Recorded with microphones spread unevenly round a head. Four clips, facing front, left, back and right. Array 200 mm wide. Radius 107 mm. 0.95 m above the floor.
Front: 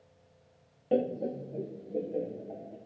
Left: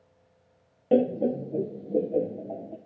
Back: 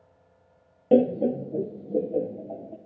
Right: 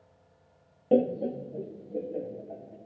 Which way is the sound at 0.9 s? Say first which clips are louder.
Left 2 dB, back 9 dB; 175° right.